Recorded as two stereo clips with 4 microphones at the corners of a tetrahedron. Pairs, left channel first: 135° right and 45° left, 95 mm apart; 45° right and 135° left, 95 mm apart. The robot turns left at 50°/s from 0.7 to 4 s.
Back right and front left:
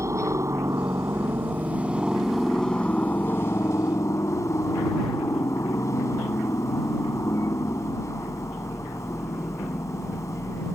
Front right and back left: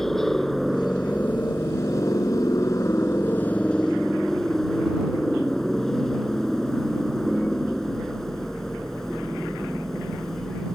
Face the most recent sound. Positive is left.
turn(degrees=-125)